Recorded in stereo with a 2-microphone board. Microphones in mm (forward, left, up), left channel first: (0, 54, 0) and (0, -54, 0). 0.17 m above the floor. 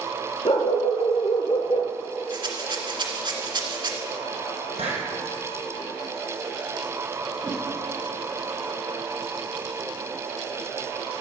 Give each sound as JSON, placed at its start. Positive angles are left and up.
{"t": 0.5, "sound": "a dog barking", "side_deg": 70, "distance_m": 1.4}
{"t": 2.3, "sound": "a rattle", "side_deg": -50, "distance_m": 1.9}
{"t": 4.8, "sound": "a hiss", "side_deg": -75, "distance_m": 4.5}
{"t": 7.4, "sound": "a whoosh", "side_deg": -10, "distance_m": 3.0}